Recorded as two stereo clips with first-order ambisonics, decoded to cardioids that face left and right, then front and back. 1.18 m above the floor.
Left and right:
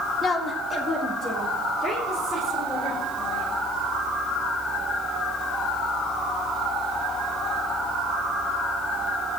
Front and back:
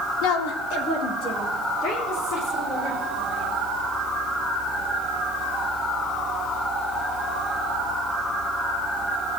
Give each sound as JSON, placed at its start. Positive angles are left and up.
{"t": 0.2, "sound": "a woman speaking", "azimuth_deg": 20, "distance_m": 0.6}